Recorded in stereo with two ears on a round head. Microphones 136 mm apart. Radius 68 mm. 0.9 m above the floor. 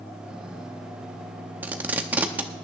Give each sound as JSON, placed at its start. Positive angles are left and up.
{"t": 1.6, "sound": "tape being pulled", "side_deg": -10, "distance_m": 0.7}